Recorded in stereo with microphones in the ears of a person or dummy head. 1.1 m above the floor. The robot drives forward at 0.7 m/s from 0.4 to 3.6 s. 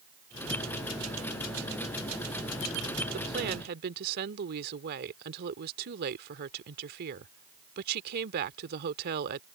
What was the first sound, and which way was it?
A woman speaking, 50° right (ahead or behind).